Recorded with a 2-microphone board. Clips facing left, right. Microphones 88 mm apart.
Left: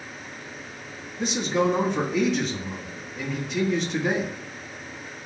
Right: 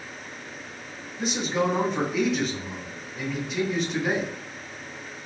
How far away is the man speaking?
About 0.8 m.